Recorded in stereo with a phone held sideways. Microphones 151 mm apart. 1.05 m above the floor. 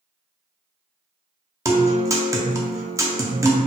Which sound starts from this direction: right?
A guitar, at 1.6 s.